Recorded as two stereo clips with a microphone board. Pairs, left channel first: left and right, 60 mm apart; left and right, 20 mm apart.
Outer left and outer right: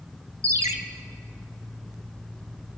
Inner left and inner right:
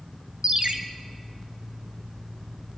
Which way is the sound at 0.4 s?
55° right (ahead or behind).